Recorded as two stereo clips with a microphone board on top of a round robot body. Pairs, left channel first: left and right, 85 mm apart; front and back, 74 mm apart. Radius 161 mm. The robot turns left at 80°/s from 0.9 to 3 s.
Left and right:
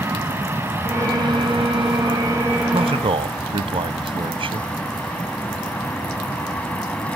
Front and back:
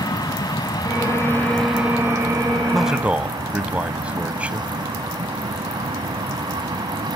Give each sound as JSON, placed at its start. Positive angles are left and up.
{"t": 0.0, "sound": "an aircraft", "azimuth_deg": -25}
{"t": 2.7, "sound": "a man speaking", "azimuth_deg": -85}